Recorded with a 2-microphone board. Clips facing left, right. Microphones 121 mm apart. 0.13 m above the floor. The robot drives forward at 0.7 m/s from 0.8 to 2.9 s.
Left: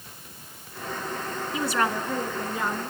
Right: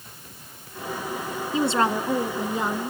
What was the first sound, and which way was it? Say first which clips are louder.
A woman speaking: right 4 dB; 25° right (ahead or behind).